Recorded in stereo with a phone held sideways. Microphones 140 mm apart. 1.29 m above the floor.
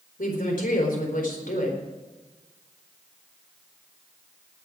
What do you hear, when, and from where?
0.2 s a woman speaking: 90° left, 4 m